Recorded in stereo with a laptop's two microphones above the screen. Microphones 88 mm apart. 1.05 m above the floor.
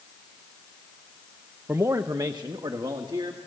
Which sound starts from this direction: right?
A man speaking, at 1.7 s.